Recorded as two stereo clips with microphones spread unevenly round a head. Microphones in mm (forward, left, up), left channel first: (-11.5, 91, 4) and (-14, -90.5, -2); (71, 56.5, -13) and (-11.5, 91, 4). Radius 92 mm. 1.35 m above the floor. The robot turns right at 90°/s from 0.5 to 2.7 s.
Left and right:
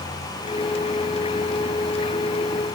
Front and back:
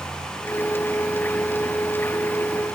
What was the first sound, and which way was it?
Only background noise.